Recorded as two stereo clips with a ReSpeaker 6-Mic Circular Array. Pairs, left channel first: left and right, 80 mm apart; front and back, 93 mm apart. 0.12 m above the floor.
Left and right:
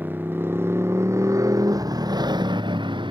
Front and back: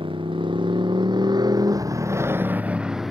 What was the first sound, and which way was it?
A motorcycle, 155° right.